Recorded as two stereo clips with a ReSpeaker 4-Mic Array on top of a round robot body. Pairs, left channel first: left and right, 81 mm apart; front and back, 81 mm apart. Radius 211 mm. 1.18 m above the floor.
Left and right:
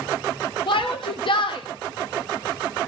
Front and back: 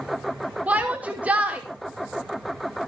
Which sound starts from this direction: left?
A shout, at 0.7 s.